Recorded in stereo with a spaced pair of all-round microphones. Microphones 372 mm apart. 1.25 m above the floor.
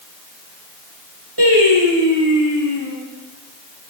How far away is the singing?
About 5 m.